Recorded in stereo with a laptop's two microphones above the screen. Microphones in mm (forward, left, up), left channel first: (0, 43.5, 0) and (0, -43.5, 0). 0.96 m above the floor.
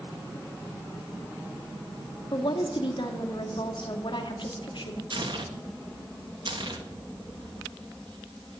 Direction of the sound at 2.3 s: 65° left (ahead or behind).